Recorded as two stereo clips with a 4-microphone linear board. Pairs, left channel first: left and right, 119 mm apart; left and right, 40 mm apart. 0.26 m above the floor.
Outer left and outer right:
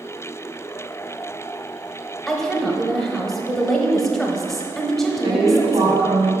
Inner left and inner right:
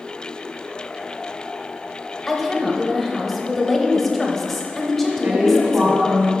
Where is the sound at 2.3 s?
5° left (ahead or behind), 1.0 m.